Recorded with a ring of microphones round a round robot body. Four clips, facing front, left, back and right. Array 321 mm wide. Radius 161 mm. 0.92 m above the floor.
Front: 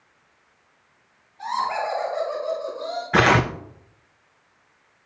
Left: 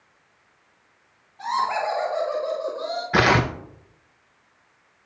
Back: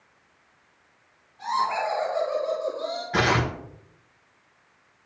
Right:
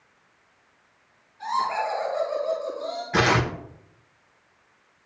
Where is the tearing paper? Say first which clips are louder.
Left 3 dB, front 6 dB; 30° left, 0.6 m.